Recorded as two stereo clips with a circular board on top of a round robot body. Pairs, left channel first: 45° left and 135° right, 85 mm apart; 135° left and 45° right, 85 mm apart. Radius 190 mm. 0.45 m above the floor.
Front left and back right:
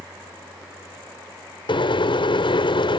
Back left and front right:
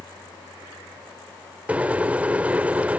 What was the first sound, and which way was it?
A microwave, 30° left.